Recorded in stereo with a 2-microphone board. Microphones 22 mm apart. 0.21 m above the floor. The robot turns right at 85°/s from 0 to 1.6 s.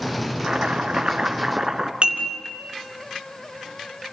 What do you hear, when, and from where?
0.4 s chopping: 125° right, 1.4 m; by 1.9 s 25° right, 1.4 m
2.0 s dishes clattering: 55° right (ahead or behind), 2.0 m